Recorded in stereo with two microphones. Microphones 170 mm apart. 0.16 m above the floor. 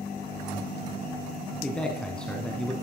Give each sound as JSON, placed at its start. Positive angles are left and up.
{"t": 1.6, "sound": "a man speaking", "side_deg": 5, "distance_m": 1.2}